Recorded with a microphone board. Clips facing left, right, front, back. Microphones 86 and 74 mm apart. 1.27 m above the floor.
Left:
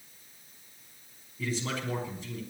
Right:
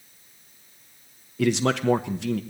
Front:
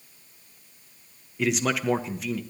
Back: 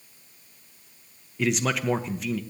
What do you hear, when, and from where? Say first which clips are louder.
1.4 s a man speaking: right 12 dB, even; 90° right, 0.9 m